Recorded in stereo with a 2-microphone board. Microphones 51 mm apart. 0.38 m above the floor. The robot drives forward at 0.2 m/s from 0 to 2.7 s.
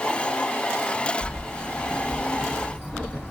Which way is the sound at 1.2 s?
15° left (ahead or behind).